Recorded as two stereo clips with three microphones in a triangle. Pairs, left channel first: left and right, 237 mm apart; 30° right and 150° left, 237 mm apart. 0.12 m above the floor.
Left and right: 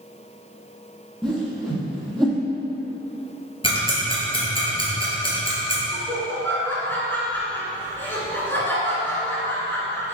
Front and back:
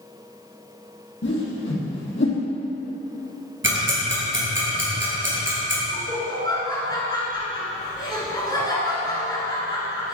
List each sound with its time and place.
1.2 s a whoosh: straight ahead, 2 m
3.6 s ticking: 155° left, 2.5 m
5.9 s laughter: 20° left, 1.3 m